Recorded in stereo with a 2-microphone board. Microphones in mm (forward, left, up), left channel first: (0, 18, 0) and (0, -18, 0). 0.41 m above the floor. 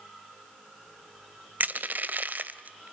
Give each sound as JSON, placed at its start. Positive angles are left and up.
{"t": 1.6, "sound": "crushing", "side_deg": -55, "distance_m": 0.9}